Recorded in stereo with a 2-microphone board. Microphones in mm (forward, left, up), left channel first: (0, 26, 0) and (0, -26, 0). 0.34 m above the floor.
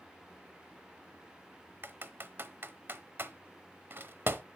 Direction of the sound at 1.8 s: 45° right (ahead or behind).